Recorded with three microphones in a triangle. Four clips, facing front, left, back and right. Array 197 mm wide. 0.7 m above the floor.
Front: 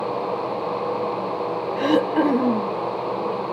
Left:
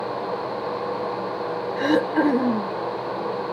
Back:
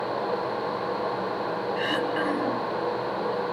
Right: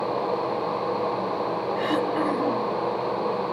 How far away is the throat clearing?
About 1.3 m.